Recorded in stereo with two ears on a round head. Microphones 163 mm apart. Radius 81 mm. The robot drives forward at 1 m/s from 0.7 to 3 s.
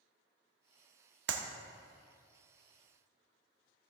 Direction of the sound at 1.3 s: 65° right (ahead or behind).